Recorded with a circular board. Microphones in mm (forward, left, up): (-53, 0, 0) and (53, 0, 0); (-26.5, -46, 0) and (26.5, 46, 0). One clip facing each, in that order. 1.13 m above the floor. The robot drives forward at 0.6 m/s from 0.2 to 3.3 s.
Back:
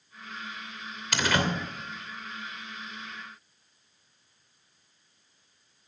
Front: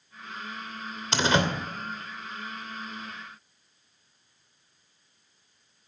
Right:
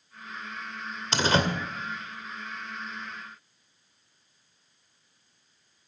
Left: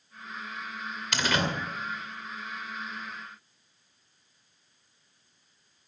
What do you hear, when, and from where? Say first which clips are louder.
1.1 s a door slam: front 3 dB, right 4 dB; 60° right, 2.5 m; by 1.5 s 65° right, 2.5 m